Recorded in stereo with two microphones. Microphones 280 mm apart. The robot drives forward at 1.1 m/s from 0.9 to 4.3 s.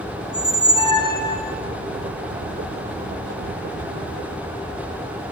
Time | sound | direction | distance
0.2 | a squeak | 20° left (ahead or behind) | 1.2 m